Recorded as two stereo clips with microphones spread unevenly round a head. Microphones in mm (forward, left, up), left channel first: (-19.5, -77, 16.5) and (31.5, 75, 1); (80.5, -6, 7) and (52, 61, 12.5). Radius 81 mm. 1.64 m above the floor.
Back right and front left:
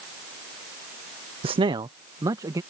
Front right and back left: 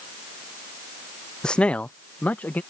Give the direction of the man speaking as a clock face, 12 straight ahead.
11 o'clock.